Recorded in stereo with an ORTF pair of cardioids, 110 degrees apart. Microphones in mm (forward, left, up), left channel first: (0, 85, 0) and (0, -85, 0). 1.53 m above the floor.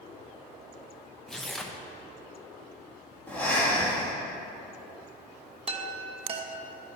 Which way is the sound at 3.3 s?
10° left.